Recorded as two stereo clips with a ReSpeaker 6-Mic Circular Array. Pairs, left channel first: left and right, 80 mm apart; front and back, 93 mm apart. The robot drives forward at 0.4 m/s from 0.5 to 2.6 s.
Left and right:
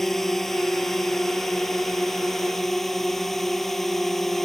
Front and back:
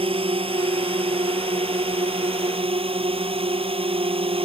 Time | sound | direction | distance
0.0 | a drone | 175° left | ?